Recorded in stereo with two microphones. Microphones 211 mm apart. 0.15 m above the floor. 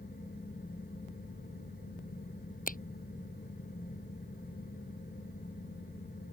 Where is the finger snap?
45° left (ahead or behind).